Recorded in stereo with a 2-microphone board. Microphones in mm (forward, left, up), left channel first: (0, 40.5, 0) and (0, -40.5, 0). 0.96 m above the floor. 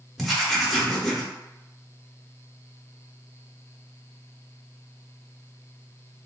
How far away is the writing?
About 0.7 m.